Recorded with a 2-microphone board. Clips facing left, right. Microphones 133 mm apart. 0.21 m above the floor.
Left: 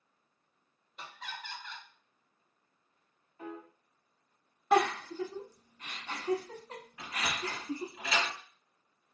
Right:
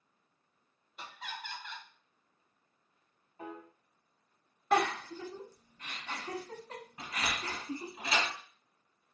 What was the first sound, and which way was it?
Laughter, 5° right (ahead or behind).